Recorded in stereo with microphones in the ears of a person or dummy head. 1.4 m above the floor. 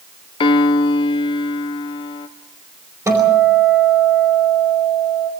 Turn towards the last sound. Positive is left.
turn(degrees=-10)  # may be behind; listen again after turning